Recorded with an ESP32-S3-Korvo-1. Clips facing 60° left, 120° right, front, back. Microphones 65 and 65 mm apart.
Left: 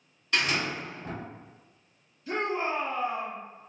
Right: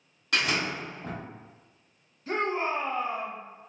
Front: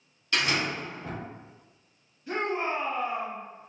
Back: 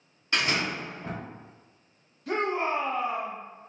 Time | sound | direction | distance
0.3 | a door slam | 115° right | 1.3 m
2.3 | a shout | 160° right | 1.3 m